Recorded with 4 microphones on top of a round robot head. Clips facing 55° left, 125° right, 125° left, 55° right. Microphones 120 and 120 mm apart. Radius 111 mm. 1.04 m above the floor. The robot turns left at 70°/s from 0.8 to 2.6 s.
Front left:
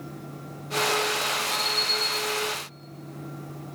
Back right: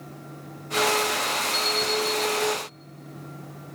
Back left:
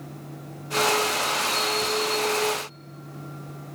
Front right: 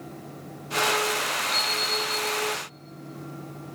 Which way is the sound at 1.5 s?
10° right.